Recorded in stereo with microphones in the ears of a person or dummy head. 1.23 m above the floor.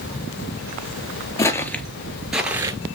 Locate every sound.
1.4 s footsteps: 20° left (ahead or behind), 1.5 m; by 3.0 s 20° right (ahead or behind), 1.4 m